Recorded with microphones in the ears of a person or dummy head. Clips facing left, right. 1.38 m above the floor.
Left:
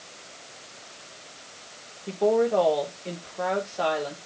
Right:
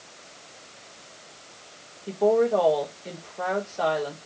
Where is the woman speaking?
5° right (ahead or behind), 4.5 m.